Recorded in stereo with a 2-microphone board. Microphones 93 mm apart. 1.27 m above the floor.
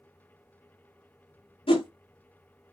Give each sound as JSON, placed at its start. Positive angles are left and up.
{"t": 1.7, "sound": "a whoosh", "side_deg": 75, "distance_m": 0.5}